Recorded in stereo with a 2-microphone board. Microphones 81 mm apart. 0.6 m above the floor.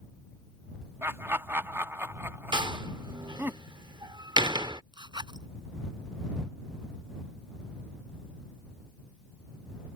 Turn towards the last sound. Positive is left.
turn(degrees=-70)  # may be behind; listen again after turning